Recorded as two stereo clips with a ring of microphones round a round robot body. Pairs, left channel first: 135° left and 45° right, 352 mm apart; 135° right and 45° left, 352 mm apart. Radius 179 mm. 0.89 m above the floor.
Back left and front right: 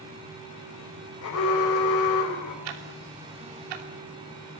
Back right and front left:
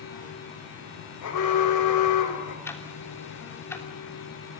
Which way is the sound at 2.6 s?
50° right.